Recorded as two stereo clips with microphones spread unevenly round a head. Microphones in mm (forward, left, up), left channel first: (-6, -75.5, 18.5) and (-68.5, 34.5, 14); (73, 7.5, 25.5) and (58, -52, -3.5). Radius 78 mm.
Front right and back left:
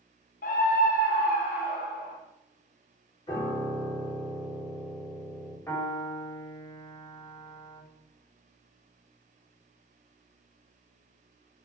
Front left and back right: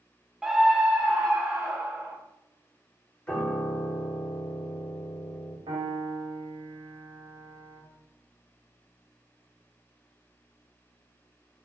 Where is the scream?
30° right, 0.8 m.